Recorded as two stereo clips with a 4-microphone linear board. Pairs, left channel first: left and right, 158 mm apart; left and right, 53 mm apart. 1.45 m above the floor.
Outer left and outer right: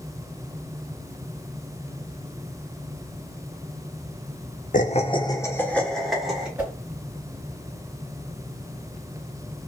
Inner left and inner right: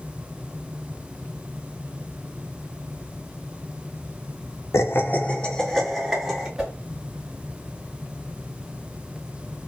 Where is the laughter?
55° left (ahead or behind), 0.5 m; by 6.5 s 5° right (ahead or behind), 1.4 m.